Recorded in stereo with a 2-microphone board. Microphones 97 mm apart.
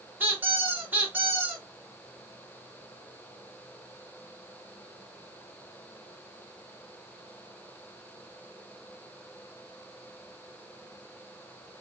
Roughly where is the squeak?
Right.